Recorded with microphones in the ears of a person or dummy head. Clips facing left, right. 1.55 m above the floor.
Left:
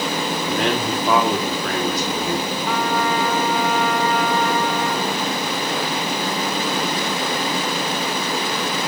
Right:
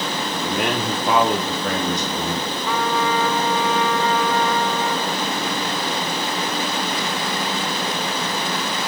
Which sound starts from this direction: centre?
A man speaking, at 0.3 s.